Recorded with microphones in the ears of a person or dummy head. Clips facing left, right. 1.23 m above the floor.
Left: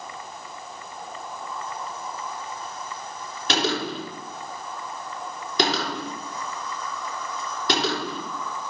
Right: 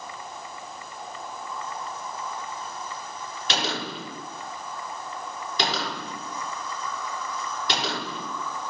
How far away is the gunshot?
About 6 m.